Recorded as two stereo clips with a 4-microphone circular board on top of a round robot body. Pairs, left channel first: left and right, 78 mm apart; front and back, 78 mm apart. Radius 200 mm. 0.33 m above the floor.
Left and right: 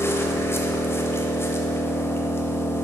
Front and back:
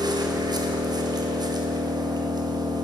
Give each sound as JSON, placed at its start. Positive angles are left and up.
{"t": 0.0, "sound": "an engine running", "azimuth_deg": 150, "distance_m": 1.0}